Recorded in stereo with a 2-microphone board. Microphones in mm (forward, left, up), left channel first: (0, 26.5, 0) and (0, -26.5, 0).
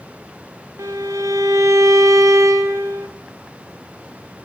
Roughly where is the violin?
Right.